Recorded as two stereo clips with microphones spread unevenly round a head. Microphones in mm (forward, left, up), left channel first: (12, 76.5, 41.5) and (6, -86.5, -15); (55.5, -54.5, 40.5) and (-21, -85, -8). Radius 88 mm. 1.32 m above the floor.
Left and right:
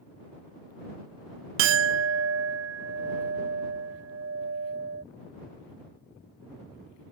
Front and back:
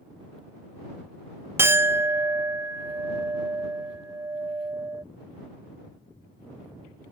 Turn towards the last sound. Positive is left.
turn(degrees=-75)